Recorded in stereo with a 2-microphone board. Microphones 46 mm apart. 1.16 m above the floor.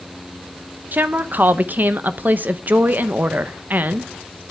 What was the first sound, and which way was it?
A woman speaking, 45° right (ahead or behind).